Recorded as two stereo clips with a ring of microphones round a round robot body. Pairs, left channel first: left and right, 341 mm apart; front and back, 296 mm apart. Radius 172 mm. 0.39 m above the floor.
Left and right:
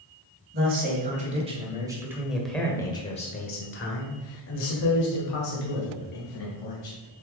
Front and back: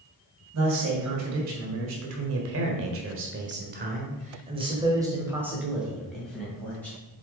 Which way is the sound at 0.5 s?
150° right.